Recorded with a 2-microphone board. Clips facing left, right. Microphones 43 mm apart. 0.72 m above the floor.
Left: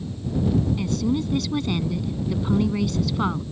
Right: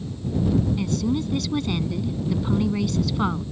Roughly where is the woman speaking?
Centre.